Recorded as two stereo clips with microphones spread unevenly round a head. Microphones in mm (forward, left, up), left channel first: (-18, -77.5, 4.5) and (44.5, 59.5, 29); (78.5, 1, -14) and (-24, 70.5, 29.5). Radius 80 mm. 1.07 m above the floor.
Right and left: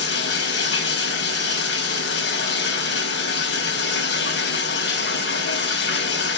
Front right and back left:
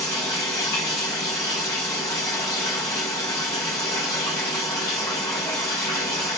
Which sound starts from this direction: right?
Running water, at 0.0 s.